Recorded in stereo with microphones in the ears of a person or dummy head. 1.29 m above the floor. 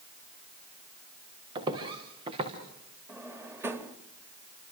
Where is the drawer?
10° right (ahead or behind), 1.4 m.